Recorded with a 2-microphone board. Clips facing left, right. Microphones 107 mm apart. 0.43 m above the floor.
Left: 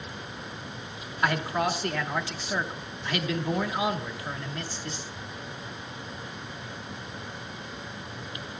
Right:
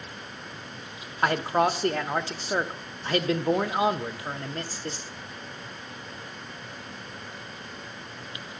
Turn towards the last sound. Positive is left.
turn(degrees=-40)  # may be behind; listen again after turning